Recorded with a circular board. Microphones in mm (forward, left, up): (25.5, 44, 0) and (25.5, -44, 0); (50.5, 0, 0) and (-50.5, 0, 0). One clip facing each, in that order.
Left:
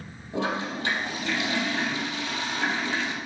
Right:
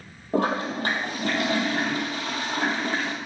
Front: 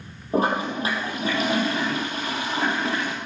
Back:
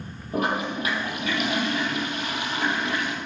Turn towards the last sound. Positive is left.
turn(degrees=-55)